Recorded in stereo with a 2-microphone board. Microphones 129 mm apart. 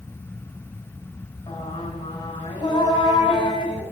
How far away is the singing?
About 4 m.